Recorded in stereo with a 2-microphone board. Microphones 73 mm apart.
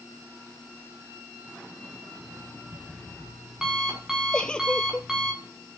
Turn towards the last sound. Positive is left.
turn(degrees=10)  # may be behind; listen again after turning